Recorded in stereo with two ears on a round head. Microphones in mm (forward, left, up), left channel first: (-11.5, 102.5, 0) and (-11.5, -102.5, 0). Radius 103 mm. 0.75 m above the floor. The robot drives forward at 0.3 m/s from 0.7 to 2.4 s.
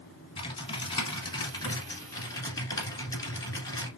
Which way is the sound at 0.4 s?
25° left (ahead or behind).